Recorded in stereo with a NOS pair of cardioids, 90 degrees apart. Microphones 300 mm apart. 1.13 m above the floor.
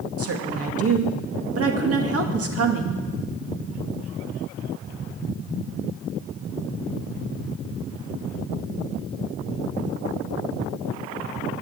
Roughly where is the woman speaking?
Ahead right.